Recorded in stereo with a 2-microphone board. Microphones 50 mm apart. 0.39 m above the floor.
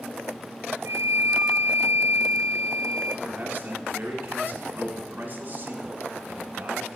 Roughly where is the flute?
Right.